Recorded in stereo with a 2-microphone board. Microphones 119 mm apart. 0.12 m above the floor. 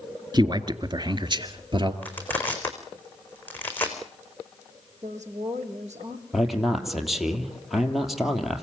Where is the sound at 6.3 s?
Centre (ahead or behind), 3 m.